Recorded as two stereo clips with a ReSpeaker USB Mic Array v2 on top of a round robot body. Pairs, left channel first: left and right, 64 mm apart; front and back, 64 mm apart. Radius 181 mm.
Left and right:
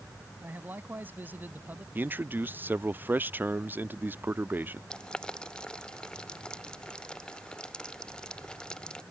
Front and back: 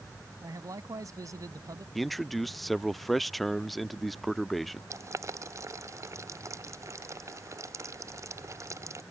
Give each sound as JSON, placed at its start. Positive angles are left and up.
{"t": 0.4, "sound": "a man speaking", "azimuth_deg": -150}
{"t": 1.9, "sound": "a man speaking", "azimuth_deg": -90}
{"t": 4.9, "sound": "boiling", "azimuth_deg": 165}